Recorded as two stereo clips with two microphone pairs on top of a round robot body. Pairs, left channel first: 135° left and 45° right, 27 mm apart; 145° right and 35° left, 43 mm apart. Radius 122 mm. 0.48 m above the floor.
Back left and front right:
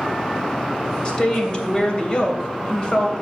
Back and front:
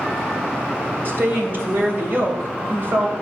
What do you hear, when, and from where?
1.1 s a woman speaking: 75° left, 3 m